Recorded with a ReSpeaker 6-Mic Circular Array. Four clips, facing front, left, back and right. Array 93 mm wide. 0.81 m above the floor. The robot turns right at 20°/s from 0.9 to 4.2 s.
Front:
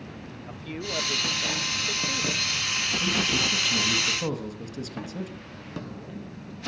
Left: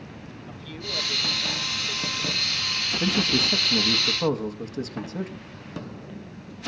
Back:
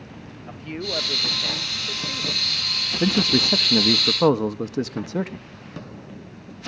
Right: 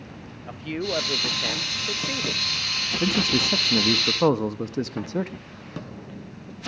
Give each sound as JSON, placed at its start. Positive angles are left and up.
{"t": 0.5, "sound": "a man speaking", "azimuth_deg": -110, "distance_m": 0.7}
{"t": 3.0, "sound": "a man speaking", "azimuth_deg": -175, "distance_m": 0.9}